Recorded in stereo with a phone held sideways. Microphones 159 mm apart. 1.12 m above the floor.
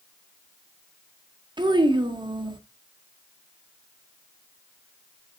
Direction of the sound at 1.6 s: 25° right (ahead or behind).